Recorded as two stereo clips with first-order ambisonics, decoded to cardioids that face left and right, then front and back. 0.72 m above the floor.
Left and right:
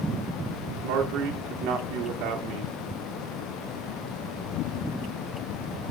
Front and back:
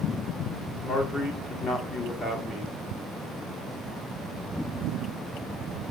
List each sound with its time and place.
0.8 s a man speaking: 65° right, 2 m